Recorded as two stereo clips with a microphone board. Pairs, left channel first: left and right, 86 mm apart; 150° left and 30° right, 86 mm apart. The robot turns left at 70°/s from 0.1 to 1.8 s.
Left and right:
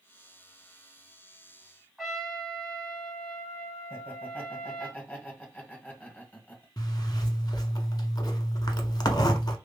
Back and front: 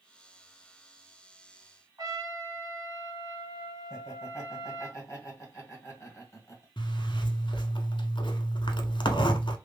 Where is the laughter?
145° left, 1.6 m.